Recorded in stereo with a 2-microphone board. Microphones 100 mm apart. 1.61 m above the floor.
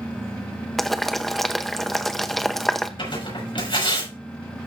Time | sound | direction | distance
0.8 | boiling | centre (ahead or behind) | 0.8 m
3.0 | tearing paper | 55° left (ahead or behind) | 5.5 m